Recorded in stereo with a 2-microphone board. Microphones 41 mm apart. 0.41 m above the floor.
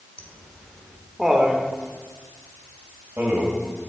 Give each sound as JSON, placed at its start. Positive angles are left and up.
{"t": 0.2, "sound": "laughter", "side_deg": 30, "distance_m": 1.6}